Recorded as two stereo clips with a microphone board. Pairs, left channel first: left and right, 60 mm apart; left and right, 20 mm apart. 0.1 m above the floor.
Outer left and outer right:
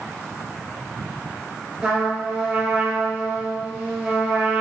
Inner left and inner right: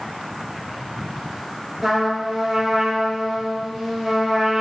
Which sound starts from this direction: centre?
A trumpet, at 1.8 s.